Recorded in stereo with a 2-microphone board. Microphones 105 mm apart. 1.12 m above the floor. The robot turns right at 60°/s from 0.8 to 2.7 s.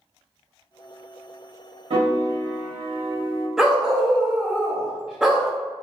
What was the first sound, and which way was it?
A piano, 110° right.